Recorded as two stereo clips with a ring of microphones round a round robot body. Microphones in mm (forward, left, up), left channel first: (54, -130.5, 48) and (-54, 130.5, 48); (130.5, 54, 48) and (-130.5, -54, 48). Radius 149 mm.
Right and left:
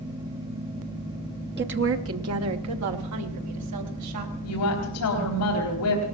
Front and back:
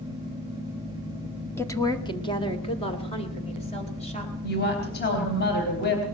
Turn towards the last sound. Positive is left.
turn(degrees=-35)